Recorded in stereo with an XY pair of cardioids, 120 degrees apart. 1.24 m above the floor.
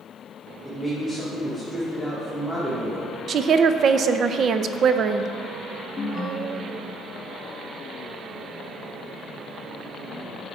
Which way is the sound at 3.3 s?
45° right.